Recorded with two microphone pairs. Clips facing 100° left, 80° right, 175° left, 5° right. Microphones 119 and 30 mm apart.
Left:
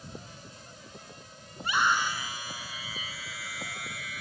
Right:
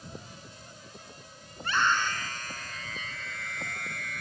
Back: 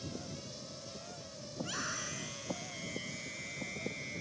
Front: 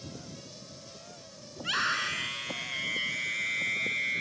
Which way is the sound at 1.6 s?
20° left.